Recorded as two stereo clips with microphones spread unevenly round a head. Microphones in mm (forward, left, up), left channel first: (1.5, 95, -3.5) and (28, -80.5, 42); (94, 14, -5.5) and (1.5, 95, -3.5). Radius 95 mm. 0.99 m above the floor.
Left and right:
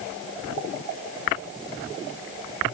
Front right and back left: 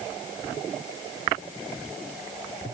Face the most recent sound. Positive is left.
No sound to turn to.